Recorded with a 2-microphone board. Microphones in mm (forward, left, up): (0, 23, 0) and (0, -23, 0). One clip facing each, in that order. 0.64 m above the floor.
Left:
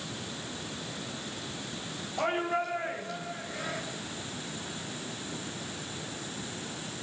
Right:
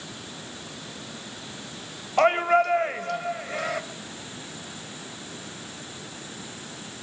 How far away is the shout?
About 3 m.